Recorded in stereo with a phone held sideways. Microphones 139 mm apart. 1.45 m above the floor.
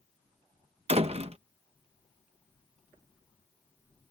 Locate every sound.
0.9 s a door slam: 45° right (ahead or behind)